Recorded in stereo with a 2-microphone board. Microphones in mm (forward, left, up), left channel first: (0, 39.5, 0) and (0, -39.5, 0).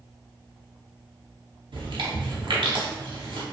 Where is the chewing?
80° right, 0.7 m.